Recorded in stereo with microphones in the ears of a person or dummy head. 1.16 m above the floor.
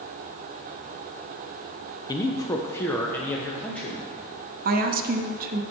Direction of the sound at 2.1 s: 20° left (ahead or behind).